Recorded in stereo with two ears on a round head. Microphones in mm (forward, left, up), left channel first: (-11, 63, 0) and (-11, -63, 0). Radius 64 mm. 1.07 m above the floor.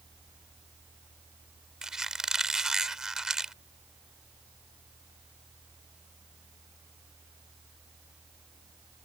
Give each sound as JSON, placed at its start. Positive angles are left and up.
{"t": 1.8, "sound": "a squeak", "side_deg": -5}